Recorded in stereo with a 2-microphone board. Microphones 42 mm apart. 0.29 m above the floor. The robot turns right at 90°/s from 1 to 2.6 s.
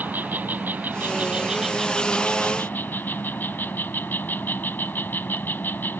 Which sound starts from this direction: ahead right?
An insect, at 0.0 s.